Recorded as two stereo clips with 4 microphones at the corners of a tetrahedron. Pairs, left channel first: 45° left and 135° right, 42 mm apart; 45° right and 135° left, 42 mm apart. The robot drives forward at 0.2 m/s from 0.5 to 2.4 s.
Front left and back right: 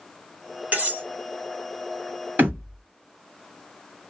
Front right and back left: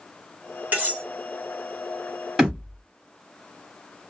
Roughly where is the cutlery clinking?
Behind.